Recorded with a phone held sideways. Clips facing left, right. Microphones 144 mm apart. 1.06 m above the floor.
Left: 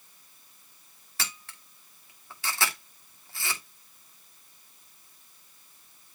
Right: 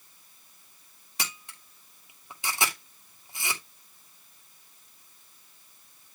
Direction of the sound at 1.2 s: 15° right (ahead or behind).